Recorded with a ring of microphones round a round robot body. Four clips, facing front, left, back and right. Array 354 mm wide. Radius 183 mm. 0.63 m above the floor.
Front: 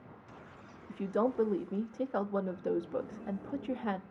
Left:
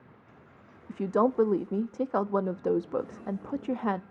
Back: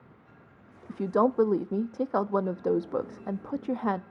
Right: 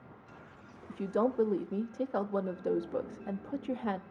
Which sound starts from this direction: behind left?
A woman speaking, at 0.9 s.